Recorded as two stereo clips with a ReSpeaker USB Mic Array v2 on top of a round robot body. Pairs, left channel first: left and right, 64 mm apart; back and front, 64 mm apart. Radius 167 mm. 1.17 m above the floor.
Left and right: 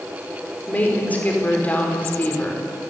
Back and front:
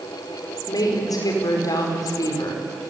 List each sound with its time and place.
0.7 s a woman speaking: 160° left, 5 m